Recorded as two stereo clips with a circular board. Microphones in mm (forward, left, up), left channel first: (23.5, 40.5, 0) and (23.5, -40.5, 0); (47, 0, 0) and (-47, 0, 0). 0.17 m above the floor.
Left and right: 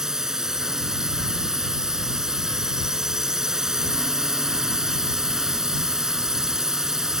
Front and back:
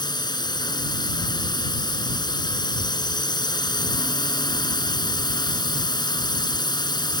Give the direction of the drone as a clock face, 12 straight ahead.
12 o'clock.